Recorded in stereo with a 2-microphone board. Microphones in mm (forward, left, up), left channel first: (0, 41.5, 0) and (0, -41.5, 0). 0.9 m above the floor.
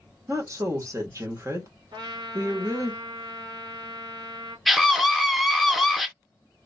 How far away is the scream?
About 0.6 m.